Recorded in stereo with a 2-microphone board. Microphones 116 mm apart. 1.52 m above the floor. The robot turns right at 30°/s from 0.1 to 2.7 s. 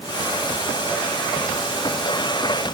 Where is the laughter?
No laughter in this recording.